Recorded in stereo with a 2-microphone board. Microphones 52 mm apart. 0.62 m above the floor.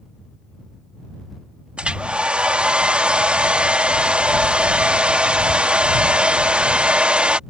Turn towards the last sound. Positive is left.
turn(degrees=-20)  # may be behind; listen again after turning